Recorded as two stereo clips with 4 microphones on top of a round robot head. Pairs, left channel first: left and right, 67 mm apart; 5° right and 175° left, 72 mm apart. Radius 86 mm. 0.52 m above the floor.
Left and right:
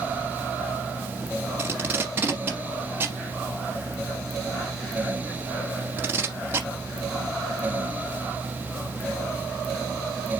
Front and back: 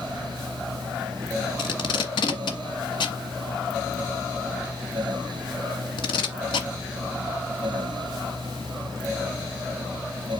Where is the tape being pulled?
25° right, 1.3 m.